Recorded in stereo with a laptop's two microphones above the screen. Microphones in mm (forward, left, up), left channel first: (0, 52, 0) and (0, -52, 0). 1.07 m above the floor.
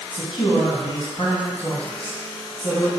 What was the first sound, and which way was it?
A man speaking, 65° left (ahead or behind).